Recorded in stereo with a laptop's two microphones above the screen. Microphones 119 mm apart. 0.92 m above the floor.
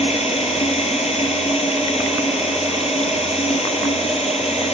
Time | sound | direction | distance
0.0 | running water | 60° left (ahead or behind) | 3.5 m